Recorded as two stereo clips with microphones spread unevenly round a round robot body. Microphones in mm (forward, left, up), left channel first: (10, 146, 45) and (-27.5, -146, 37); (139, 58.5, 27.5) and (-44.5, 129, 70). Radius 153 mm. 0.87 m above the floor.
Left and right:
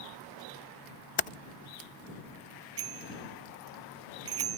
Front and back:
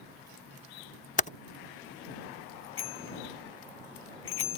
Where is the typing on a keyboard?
20° left.